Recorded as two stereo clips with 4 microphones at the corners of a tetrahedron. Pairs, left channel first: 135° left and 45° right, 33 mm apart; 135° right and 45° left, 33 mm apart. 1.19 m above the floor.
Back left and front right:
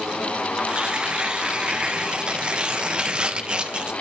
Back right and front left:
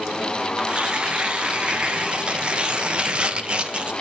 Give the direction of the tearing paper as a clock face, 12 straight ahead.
12 o'clock.